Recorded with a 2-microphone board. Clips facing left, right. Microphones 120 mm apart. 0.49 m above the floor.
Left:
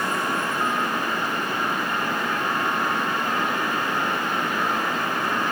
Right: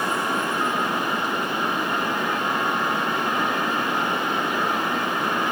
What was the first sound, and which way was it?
Only background noise.